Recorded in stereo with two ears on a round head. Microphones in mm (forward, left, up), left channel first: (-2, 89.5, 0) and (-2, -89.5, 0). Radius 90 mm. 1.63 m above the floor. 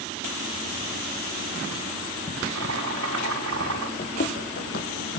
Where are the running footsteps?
35° left (ahead or behind), 2 m; by 5.2 s 55° left (ahead or behind), 3 m.